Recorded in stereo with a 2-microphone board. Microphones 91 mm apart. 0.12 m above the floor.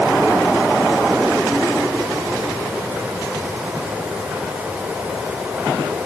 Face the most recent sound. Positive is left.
No sound to turn to.